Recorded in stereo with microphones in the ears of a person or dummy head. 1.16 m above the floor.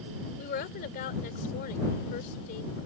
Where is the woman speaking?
50° left (ahead or behind).